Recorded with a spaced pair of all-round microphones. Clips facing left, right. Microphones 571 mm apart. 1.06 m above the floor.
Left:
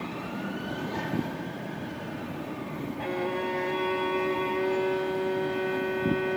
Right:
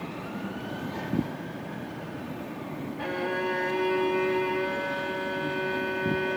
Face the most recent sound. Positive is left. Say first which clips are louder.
# even
turn(degrees=-40)  # may be behind; listen again after turning